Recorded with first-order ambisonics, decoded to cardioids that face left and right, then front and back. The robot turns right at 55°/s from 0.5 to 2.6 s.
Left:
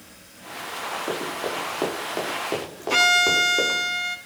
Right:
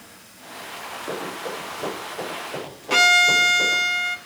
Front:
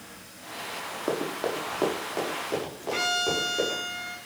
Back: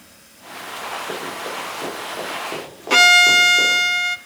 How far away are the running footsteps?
About 6.5 m.